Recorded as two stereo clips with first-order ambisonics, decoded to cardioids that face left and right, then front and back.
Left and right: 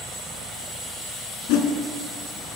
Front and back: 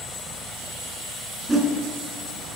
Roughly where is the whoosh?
Left.